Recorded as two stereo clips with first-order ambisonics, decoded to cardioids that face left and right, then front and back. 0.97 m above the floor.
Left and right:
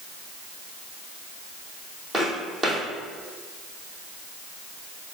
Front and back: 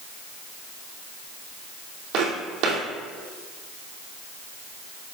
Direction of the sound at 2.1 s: 160° right.